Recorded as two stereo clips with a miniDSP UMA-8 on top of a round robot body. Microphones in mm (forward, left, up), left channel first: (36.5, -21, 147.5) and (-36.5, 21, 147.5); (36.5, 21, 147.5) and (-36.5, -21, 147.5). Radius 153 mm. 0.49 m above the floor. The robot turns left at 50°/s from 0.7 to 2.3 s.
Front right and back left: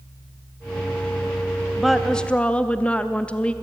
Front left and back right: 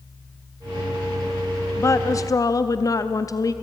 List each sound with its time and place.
1.8 s a woman speaking: 65° left, 0.8 m; by 3.5 s 40° left, 0.8 m